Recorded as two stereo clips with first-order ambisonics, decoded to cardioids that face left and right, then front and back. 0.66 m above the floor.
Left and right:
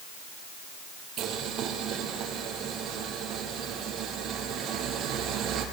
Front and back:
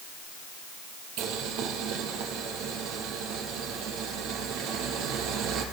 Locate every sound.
1.2 s boiling: 145° right, 3.5 m